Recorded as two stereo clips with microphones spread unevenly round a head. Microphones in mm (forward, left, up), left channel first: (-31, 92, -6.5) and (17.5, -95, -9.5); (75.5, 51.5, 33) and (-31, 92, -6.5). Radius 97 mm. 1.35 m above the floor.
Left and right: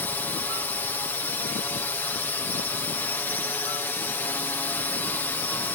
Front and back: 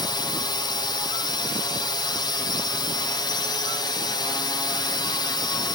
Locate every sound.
0.0 s a drone: 30° left